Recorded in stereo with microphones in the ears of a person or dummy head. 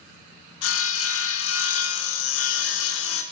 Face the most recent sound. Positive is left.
turn(degrees=85)